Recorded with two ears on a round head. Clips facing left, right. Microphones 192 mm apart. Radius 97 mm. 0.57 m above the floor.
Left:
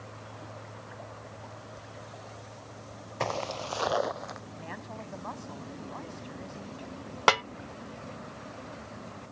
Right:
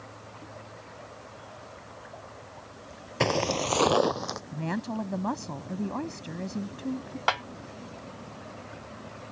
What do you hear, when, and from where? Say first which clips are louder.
3.2 s footsteps: right 7 dB; 50° right (ahead or behind); by 4.4 s 60° right (ahead or behind)
4.5 s a woman speaking: right 10 dB; 65° right (ahead or behind)
7.3 s a snare drum: left 5 dB; 65° left (ahead or behind)